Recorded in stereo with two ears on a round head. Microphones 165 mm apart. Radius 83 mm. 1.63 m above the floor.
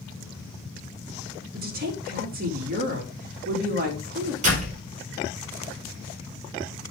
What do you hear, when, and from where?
1.5 s a woman speaking: 45° right (ahead or behind), 2.5 m
4.4 s a door slam: 40° right (ahead or behind), 4.5 m